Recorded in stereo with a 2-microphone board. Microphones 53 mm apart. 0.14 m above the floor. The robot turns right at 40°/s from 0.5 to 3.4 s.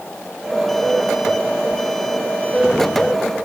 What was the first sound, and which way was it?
Only background noise.